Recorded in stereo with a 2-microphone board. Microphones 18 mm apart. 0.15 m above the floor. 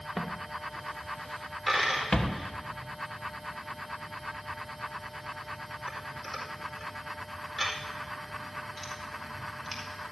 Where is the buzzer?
No buzzer in this recording.